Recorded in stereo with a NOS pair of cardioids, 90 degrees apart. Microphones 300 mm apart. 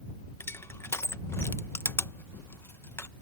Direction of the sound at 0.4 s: 10° left.